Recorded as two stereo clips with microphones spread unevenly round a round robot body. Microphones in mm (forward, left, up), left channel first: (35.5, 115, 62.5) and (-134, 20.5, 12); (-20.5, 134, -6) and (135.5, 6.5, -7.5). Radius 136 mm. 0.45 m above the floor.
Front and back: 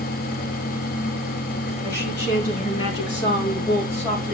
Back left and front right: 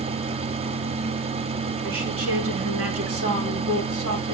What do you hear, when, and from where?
1.8 s a woman speaking: 25° right, 4 m; by 4.3 s 75° right, 2 m